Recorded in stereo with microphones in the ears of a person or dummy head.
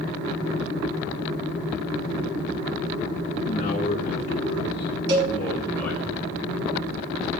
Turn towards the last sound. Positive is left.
turn(degrees=-70)  # may be behind; listen again after turning